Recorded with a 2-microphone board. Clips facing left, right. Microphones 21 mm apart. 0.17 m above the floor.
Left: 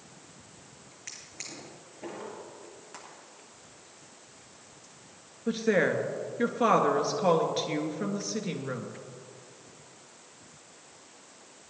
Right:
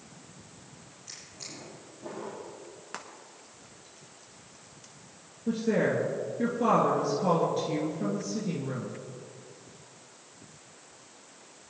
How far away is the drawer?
About 6 m.